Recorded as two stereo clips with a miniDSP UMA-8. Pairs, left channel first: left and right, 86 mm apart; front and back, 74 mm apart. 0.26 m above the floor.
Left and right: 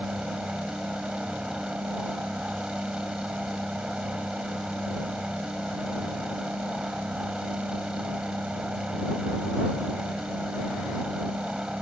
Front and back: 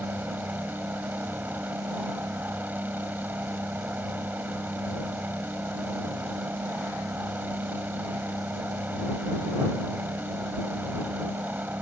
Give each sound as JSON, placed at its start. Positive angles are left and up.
{"t": 0.0, "sound": "a helicopter", "azimuth_deg": -155}